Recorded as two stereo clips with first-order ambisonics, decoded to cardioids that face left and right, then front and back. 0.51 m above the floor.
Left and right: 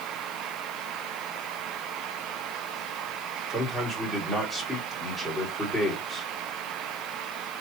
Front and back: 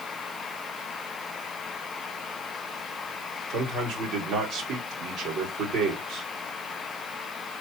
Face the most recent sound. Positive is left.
turn(degrees=175)